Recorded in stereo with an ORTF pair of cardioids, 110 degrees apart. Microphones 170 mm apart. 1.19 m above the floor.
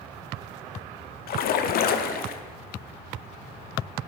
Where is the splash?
60° left, 0.5 m.